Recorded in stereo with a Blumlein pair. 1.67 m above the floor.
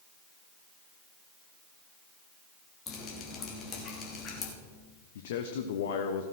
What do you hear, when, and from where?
2.9 s dripping: 25° left, 3 m
5.2 s a man speaking: 55° left, 0.9 m